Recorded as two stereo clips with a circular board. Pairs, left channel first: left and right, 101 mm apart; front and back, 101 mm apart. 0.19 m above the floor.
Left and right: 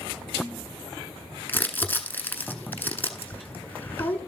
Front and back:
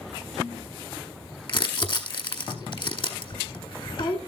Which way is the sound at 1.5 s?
20° left.